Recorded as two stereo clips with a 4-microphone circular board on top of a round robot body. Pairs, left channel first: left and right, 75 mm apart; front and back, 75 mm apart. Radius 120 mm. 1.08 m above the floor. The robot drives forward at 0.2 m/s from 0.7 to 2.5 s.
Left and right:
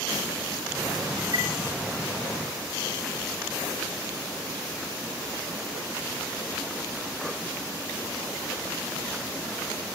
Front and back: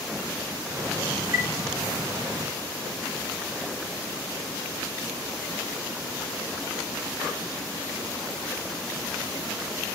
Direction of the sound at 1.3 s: 125° right.